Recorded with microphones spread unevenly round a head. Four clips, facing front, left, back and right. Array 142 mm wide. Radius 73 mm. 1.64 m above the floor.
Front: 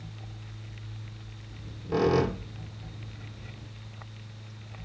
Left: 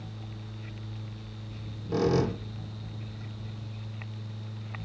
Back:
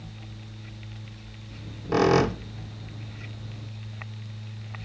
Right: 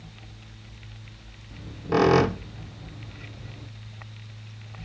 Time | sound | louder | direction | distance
1.5 | a squeak | right 8 dB, back 5 dB | 120° right | 0.7 m